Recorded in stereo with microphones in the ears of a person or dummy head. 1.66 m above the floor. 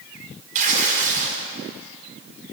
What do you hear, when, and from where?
0.6 s tearing paper: 40° right (ahead or behind), 5 m